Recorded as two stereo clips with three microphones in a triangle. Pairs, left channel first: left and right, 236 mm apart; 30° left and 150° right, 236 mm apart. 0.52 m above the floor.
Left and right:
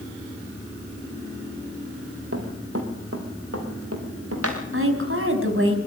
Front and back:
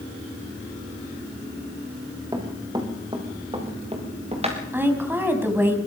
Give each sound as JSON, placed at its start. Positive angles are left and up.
{"t": 2.3, "sound": "running footsteps", "azimuth_deg": -75, "distance_m": 4.0}
{"t": 4.7, "sound": "a woman speaking", "azimuth_deg": -70, "distance_m": 3.5}